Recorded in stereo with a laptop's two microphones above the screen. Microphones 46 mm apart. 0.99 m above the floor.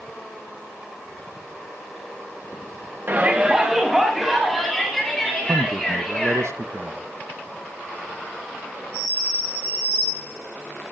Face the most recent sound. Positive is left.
turn(degrees=-60)  # may be behind; listen again after turning